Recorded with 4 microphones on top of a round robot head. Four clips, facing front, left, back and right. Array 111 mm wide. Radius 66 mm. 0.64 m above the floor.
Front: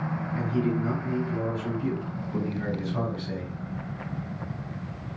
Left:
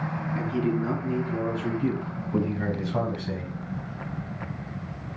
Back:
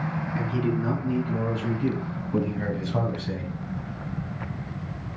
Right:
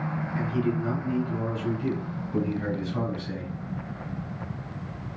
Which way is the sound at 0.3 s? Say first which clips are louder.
Left 1 dB, even; 160° left.